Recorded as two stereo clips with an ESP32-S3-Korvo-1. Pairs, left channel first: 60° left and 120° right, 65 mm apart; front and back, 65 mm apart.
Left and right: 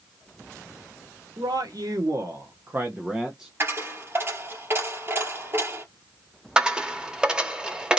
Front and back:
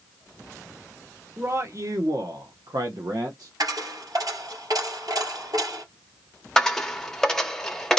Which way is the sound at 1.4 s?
130° right.